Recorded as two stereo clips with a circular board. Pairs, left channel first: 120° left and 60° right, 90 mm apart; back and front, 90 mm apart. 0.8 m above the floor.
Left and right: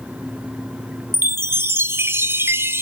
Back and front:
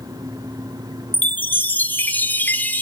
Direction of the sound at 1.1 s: 115° right.